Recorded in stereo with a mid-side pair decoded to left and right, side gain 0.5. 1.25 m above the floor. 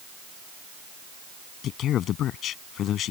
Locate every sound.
1.6 s a man speaking: 65° left